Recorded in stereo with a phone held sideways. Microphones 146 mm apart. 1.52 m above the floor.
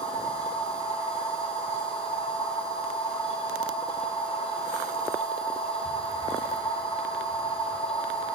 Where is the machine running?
40° left (ahead or behind), 1.3 m.